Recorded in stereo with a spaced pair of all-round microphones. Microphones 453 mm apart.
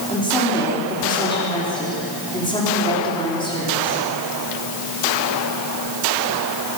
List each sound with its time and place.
0.1 s a woman speaking: 10° left (ahead or behind), 5 m